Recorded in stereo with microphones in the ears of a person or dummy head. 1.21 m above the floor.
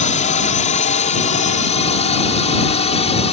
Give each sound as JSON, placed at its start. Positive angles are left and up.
{"t": 0.0, "sound": "a drone", "side_deg": 40}